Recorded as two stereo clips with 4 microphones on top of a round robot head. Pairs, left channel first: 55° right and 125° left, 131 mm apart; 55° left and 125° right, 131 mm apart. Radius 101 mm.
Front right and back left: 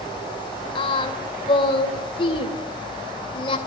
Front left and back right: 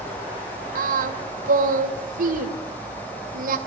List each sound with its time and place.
0.8 s singing: 110° right, 3 m